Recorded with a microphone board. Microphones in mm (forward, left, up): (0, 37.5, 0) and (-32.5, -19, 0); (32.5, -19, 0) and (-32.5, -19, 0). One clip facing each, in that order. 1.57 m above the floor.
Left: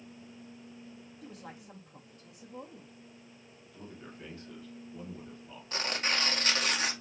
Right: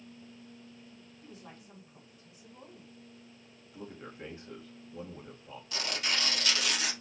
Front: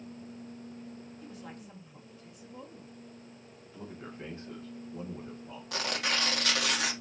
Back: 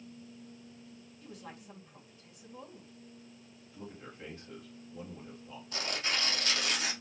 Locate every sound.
1.2 s a woman speaking: 90° left, 3 m
3.7 s a man speaking: 50° right, 2 m
5.7 s tearing paper: 5° left, 2 m